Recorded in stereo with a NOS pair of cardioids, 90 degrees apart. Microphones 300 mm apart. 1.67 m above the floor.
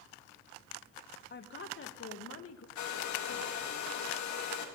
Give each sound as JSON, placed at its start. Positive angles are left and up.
{"t": 1.3, "sound": "a woman speaking", "azimuth_deg": 35, "distance_m": 1.5}
{"t": 2.8, "sound": "a hair dryer", "azimuth_deg": 70, "distance_m": 2.5}